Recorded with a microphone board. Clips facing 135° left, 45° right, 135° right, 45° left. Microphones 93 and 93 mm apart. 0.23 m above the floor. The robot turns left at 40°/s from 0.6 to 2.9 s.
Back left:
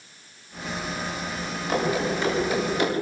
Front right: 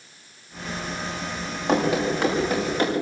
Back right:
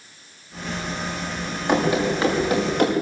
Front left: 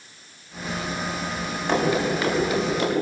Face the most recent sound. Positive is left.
turn(degrees=-100)